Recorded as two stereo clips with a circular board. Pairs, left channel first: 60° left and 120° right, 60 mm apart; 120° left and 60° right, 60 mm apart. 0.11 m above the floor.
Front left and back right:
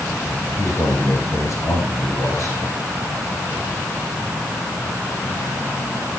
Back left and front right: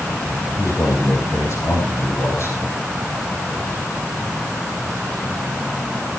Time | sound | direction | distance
0.6 | a man speaking | 85° left | 8.5 m